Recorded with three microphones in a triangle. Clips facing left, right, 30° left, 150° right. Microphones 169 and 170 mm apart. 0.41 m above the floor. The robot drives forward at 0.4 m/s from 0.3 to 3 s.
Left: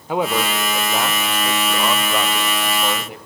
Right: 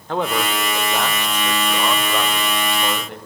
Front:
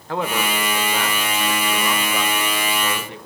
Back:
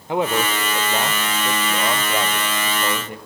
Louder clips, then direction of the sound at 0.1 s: Left 1 dB, back 3 dB; 160° left.